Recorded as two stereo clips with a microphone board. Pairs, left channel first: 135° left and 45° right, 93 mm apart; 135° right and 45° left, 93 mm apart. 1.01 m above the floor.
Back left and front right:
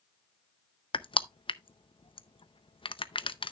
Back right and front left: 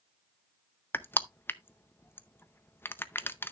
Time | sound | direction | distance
0.9 | crushing | 155° left | 0.6 m